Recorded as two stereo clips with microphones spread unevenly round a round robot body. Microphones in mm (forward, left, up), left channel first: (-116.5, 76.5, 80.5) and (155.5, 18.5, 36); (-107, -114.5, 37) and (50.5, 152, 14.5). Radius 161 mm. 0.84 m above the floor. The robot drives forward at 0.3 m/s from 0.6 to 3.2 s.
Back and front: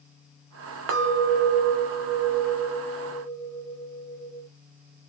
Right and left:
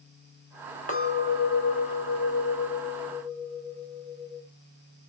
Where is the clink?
50° right, 0.7 m; by 4.5 s 115° right, 0.6 m.